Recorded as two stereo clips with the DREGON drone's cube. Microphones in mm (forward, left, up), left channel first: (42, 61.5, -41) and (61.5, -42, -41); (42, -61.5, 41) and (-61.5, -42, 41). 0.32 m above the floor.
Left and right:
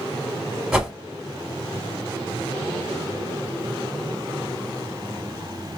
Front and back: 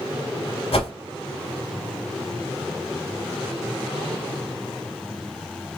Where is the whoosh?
5° left, 0.7 m.